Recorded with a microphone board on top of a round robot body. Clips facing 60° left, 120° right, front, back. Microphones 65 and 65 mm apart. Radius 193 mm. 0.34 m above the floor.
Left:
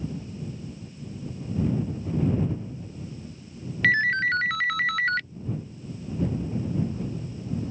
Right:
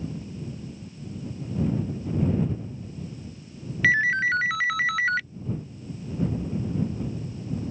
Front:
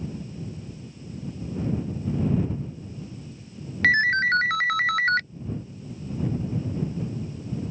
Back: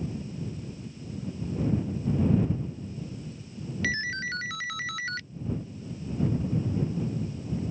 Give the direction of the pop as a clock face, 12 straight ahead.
I don't hear a pop.